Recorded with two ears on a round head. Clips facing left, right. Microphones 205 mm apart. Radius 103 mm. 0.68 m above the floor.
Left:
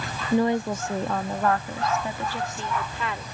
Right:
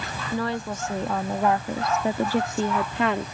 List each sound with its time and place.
0.3 s a woman speaking: 20° left (ahead or behind); by 3.2 s 50° right (ahead or behind)